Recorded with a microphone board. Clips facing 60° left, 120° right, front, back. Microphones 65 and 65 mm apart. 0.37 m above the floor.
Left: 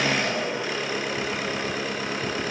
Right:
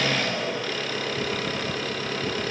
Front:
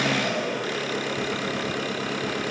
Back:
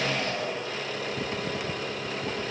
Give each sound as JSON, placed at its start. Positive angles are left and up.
{"t": 0.0, "sound": "an engine running", "azimuth_deg": -10, "distance_m": 2.5}